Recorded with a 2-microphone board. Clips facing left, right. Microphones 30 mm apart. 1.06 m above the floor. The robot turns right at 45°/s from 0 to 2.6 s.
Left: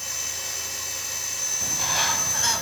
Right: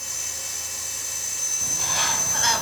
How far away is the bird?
About 2.5 m.